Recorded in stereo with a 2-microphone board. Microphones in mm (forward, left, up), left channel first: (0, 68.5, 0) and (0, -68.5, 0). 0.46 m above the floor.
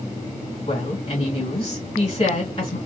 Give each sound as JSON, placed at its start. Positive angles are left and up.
{"t": 0.7, "sound": "a woman speaking", "side_deg": 45, "distance_m": 2.5}